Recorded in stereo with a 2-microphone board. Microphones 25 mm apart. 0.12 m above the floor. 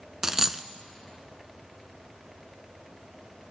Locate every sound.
0.2 s a dropped coin: 20° right (ahead or behind), 0.6 m